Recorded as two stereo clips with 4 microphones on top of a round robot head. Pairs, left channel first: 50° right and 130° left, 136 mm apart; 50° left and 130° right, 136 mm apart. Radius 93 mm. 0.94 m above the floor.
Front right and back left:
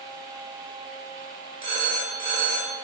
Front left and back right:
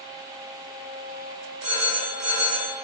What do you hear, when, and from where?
1.6 s a phone ringing: straight behind, 5 m